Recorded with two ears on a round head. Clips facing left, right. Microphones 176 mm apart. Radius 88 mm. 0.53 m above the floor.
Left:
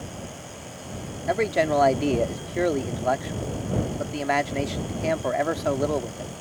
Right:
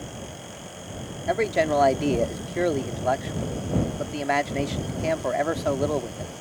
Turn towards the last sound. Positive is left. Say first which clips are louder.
# even
turn(degrees=0)  # may be behind; listen again after turning